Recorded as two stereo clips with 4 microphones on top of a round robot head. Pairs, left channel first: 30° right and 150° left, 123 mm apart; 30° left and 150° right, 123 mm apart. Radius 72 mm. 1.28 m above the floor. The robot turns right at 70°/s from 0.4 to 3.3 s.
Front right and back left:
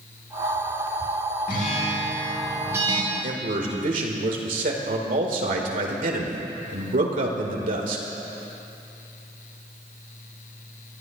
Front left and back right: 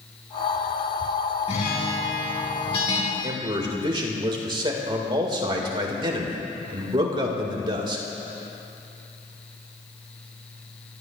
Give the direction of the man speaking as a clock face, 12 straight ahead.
7 o'clock.